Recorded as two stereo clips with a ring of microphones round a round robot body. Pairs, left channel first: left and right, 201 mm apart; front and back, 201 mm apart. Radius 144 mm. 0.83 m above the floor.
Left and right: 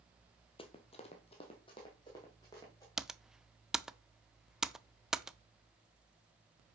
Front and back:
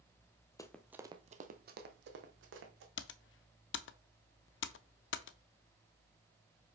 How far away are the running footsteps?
About 0.9 m.